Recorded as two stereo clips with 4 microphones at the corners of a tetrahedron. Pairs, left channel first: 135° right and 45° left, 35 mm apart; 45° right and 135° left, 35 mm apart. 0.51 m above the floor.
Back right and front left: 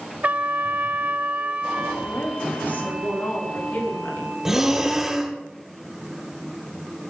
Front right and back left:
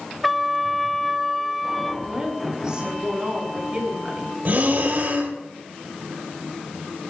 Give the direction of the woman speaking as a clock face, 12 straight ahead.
5 o'clock.